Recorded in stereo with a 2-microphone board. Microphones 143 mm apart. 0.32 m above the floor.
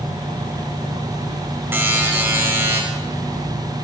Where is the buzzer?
15° right (ahead or behind), 1.5 m.